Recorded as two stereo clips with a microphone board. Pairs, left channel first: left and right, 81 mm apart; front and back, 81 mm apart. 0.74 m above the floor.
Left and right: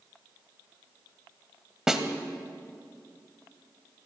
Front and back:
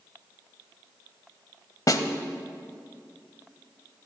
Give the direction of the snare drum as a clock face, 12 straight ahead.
12 o'clock.